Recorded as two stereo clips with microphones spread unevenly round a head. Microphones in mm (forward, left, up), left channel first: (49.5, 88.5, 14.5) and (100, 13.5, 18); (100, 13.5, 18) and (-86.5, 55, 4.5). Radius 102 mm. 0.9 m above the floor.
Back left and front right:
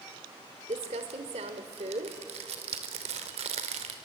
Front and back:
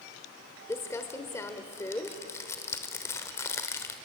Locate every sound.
0.7 s crumpling: 90° right, 1.4 m